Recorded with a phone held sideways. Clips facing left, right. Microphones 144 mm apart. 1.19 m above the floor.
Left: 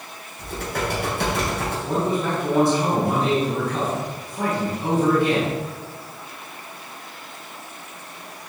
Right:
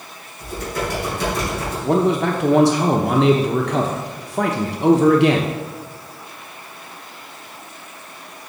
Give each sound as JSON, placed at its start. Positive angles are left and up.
{"t": 0.4, "sound": "typing on a keyboard", "side_deg": 65, "distance_m": 3.5}
{"t": 1.9, "sound": "a man speaking", "side_deg": -80, "distance_m": 0.8}